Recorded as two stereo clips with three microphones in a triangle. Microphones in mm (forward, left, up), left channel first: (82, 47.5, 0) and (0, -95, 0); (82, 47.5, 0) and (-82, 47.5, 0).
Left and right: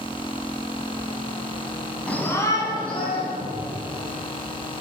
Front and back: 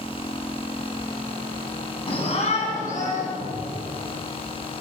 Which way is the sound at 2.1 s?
15° right.